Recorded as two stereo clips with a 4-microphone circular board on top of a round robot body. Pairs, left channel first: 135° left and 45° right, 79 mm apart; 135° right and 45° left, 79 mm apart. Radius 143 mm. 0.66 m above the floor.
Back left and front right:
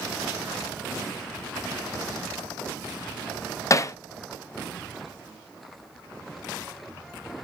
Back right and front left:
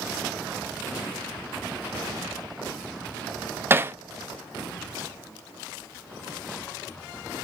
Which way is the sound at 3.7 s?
100° left.